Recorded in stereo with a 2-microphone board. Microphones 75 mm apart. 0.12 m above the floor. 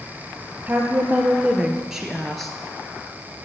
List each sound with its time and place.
0.7 s a woman speaking: 25° right (ahead or behind), 2.5 m; by 2.5 s 5° left (ahead or behind), 2 m